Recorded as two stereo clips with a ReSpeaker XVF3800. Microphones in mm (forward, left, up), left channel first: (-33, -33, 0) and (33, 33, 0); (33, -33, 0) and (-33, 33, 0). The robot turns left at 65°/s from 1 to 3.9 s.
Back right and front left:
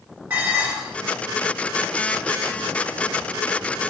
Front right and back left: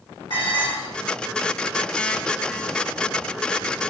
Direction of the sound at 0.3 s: 25° right.